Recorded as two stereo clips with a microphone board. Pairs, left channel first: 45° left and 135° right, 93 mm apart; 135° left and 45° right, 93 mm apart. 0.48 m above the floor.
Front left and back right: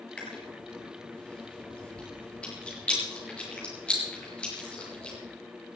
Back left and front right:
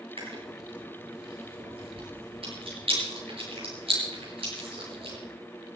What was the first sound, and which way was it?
Chewing, 35° right.